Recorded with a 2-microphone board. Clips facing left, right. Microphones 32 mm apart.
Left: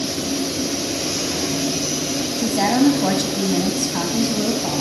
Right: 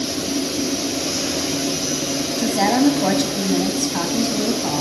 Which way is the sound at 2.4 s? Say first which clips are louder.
Even; 5° right (ahead or behind).